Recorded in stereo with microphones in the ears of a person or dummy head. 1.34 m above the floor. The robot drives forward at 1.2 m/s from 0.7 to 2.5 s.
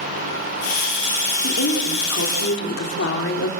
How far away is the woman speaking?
About 3.5 m.